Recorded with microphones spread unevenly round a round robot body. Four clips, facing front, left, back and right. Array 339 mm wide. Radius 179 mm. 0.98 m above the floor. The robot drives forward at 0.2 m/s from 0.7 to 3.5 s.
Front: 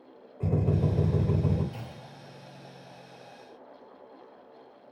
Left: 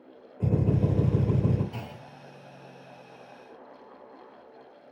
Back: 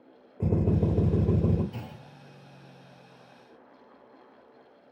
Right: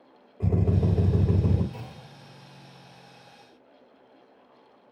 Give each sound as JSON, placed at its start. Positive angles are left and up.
{"t": 0.4, "sound": "a drill", "azimuth_deg": -170, "distance_m": 4.0}
{"t": 1.7, "sound": "a clunk", "azimuth_deg": 120, "distance_m": 0.9}